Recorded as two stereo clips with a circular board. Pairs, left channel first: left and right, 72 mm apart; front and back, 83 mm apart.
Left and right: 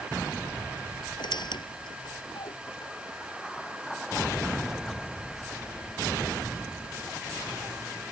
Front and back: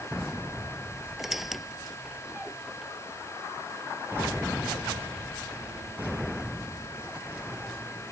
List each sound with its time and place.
1.2 s a squeak: 95° left